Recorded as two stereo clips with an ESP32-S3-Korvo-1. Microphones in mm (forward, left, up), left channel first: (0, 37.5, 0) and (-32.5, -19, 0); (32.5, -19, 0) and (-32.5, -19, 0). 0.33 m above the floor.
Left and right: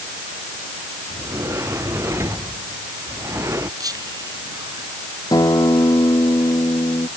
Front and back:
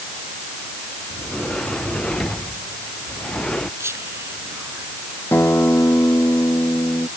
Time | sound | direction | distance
1.1 | a sliding door | 75° right | ?
3.8 | whispering | 135° right | ?
5.3 | a guitar | 55° left | ?